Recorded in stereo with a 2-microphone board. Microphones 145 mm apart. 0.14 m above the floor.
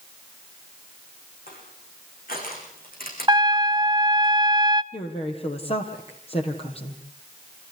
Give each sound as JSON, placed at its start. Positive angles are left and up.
{"t": 1.5, "sound": "crushing", "side_deg": 70, "distance_m": 8.0}
{"t": 3.3, "sound": "a trumpet", "side_deg": -30, "distance_m": 0.6}
{"t": 4.9, "sound": "a woman speaking", "side_deg": 40, "distance_m": 3.5}